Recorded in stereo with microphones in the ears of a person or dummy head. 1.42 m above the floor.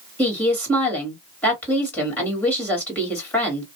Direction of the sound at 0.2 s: 10° left (ahead or behind).